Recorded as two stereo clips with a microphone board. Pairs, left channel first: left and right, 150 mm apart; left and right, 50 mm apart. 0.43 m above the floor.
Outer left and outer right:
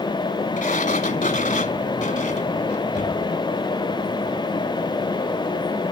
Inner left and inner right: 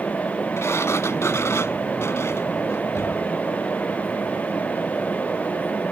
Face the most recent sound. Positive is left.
turn(degrees=65)  # may be behind; listen again after turning